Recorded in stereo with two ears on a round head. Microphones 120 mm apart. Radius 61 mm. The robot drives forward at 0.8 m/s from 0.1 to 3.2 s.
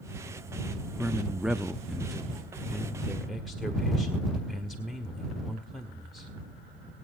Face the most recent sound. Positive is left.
turn(degrees=0)  # may be behind; listen again after turning